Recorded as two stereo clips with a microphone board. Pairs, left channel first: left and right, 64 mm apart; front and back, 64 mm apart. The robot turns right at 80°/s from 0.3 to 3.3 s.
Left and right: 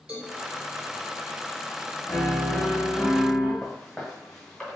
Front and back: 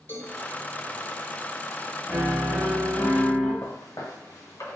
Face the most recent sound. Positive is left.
turn(degrees=5)